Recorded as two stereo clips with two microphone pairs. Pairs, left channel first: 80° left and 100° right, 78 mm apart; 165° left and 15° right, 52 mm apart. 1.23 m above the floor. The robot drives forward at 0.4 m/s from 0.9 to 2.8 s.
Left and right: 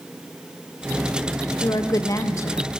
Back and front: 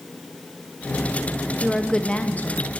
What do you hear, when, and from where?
1.6 s a woman speaking: 70° left, 0.6 m; by 2.7 s 125° left, 0.6 m